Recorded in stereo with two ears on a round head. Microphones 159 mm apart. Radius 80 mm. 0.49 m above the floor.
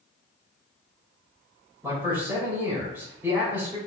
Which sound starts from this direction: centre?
A man speaking, at 1.8 s.